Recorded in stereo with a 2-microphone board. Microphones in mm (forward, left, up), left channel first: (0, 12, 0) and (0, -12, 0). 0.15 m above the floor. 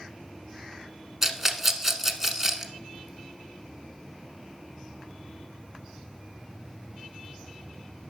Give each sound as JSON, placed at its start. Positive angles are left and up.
{"t": 1.2, "sound": "a rattle", "side_deg": -10, "distance_m": 0.9}